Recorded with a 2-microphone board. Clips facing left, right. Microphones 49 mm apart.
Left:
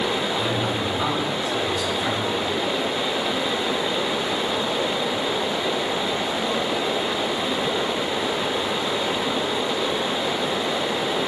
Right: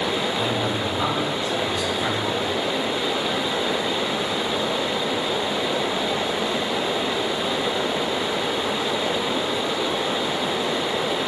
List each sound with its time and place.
0.4 s a man speaking: 20° left (ahead or behind), 3.5 m; by 2.5 s centre (ahead or behind), 3.5 m